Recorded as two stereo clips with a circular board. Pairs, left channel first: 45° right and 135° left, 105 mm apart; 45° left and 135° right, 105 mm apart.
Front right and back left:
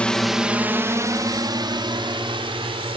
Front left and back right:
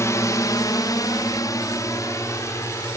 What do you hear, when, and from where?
0.0 s a drone: 25° left; by 3.0 s 105° left